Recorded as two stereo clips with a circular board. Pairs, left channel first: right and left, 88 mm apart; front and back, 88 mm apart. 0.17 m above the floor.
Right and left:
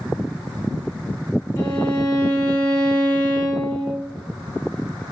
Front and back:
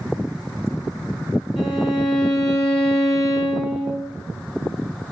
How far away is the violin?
About 1.5 m.